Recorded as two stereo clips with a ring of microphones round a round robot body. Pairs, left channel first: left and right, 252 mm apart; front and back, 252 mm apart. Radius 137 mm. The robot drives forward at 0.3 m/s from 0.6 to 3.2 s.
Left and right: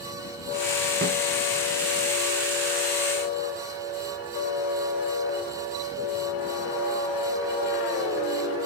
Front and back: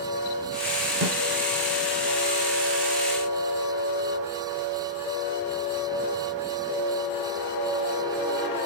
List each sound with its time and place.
1.0 s a snare drum: 145° right, 1.2 m